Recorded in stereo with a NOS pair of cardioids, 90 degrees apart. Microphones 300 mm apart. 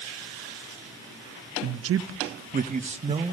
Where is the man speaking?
65° right, 1.1 m; by 3.3 s 20° right, 2 m.